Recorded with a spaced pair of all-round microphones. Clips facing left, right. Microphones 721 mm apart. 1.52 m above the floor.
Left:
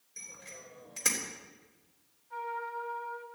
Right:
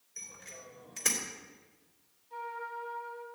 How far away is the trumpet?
About 4.5 m.